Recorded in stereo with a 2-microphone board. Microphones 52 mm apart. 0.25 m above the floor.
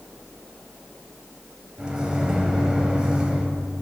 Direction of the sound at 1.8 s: 15° right (ahead or behind).